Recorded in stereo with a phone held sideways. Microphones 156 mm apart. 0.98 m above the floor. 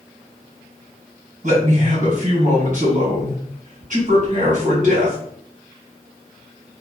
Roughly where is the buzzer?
No buzzer in this recording.